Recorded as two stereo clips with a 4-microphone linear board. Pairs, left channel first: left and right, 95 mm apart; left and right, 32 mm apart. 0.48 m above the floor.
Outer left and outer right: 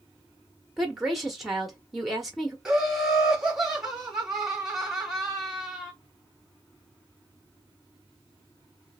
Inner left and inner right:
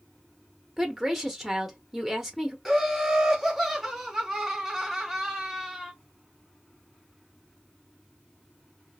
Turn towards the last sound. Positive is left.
turn(degrees=-5)  # may be behind; listen again after turning